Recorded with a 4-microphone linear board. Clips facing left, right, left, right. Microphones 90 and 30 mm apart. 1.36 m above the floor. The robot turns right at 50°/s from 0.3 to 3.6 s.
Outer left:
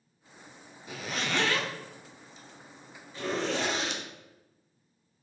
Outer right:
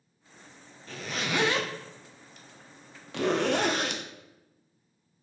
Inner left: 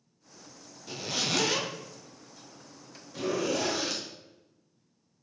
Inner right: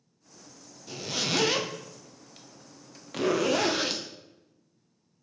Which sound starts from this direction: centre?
A zipper, at 0.9 s.